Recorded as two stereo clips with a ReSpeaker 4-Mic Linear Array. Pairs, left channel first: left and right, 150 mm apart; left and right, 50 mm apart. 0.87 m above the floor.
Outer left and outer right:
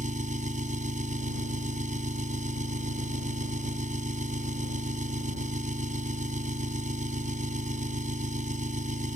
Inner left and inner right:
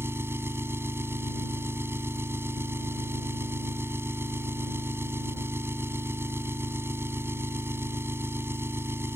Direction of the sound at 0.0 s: 55° right (ahead or behind).